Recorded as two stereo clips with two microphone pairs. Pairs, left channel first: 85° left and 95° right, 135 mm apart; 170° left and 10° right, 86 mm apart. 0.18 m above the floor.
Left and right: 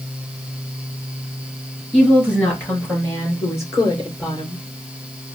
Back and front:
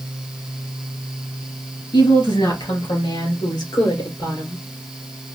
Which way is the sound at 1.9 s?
170° left.